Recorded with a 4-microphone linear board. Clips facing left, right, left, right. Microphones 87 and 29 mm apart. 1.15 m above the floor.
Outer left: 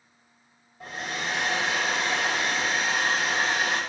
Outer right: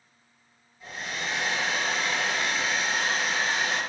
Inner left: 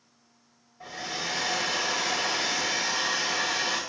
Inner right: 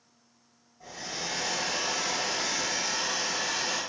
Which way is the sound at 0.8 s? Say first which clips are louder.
Outer left 2 dB, inner left 3 dB; 65° left (ahead or behind).